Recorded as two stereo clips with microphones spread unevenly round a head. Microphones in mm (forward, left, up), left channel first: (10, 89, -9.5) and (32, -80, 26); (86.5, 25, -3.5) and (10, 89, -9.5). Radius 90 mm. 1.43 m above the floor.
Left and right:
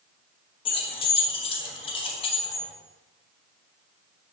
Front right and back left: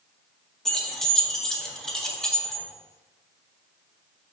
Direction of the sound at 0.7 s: 35° left.